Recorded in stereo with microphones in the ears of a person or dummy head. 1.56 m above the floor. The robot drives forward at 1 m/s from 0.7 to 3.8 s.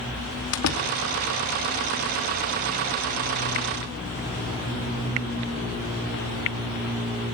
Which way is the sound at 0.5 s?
80° left.